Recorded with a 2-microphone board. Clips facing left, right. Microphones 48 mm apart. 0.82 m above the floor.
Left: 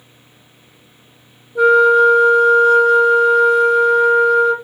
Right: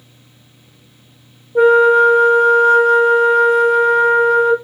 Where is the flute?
55° right (ahead or behind), 1.0 m.